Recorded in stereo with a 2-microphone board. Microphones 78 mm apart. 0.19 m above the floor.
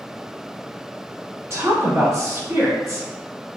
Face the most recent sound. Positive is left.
turn(degrees=-40)  # may be behind; listen again after turning